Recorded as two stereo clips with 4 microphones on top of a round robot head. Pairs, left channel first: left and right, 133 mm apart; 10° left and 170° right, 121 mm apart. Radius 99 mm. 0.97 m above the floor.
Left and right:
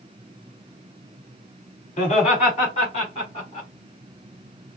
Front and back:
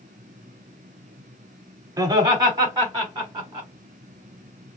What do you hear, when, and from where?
2.0 s laughter: 135° left, 3 m; by 3.7 s 145° left, 5 m